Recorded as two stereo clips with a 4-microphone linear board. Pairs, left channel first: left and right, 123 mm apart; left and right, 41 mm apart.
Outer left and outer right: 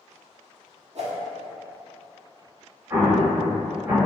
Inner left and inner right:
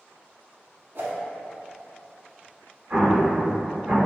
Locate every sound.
0.9 s a whoosh: 60° right (ahead or behind), 0.6 m
2.9 s an explosion: 25° right (ahead or behind), 1.3 m